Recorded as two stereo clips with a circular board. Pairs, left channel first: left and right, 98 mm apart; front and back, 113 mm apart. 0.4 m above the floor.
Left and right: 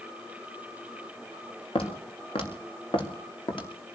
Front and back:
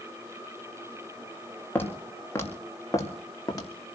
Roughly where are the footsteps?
Left.